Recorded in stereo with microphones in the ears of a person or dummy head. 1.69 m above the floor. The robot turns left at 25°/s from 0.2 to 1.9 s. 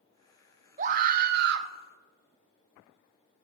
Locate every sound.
0.8 s a scream: 35° right (ahead or behind), 0.7 m; by 1.7 s 60° right (ahead or behind), 0.7 m